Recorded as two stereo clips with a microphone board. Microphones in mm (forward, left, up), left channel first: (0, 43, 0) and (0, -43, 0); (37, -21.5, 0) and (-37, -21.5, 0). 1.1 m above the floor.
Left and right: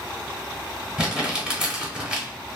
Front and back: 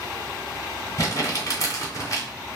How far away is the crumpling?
About 1.1 m.